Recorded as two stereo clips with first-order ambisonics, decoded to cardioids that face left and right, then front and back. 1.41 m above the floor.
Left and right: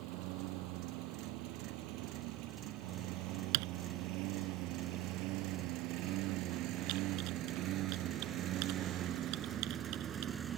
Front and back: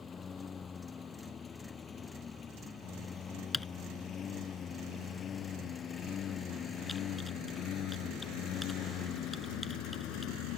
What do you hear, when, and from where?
0.0 s a lawn mower: 75° right; by 10.6 s 30° right
3.5 s typing on a keyboard: 85° right